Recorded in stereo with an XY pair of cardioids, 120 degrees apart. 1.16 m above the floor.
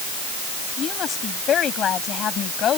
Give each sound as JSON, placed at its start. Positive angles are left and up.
{"t": 0.8, "sound": "a woman speaking", "azimuth_deg": 50}